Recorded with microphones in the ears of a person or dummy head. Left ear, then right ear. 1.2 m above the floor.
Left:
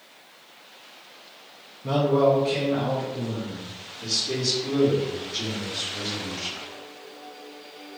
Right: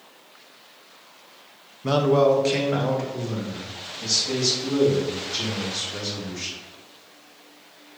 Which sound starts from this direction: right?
A man speaking, at 1.8 s.